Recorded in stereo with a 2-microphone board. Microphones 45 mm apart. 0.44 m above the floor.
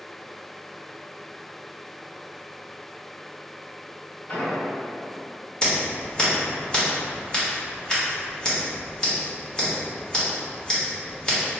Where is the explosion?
45° left (ahead or behind), 1.6 m.